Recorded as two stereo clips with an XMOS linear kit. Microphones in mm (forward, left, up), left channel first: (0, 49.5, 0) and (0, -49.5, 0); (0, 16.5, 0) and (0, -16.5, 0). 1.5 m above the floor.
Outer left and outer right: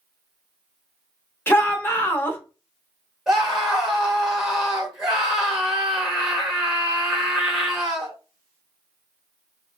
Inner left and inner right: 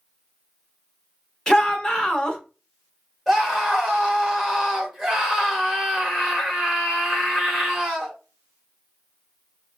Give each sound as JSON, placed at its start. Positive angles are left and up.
{"t": 1.5, "sound": "a shout", "side_deg": 20, "distance_m": 0.9}
{"t": 3.3, "sound": "a scream", "side_deg": -5, "distance_m": 1.3}